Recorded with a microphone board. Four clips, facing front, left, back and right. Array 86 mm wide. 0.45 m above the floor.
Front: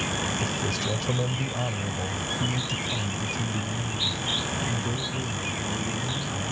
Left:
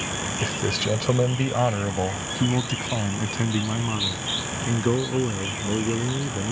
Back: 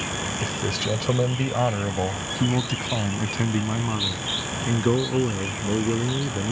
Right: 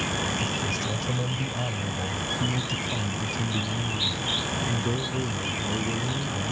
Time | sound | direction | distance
0.4 | a man speaking | 105° left | ?